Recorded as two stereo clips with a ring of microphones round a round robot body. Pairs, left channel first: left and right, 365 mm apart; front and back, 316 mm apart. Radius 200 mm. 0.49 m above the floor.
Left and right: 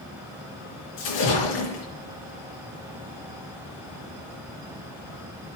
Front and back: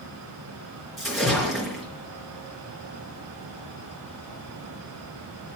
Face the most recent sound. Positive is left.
turn(degrees=90)